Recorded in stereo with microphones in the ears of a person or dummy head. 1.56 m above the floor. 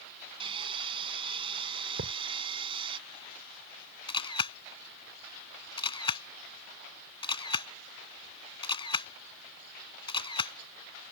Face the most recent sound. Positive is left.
turn(degrees=25)  # may be behind; listen again after turning